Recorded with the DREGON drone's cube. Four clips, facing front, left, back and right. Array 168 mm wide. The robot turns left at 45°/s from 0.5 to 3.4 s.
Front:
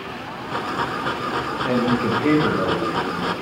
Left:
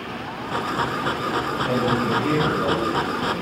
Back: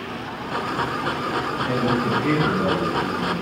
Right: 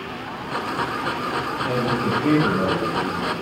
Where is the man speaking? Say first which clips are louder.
Left 1 dB, front 3 dB; 10° left, 2.5 m; by 3.3 s 65° right, 2.5 m.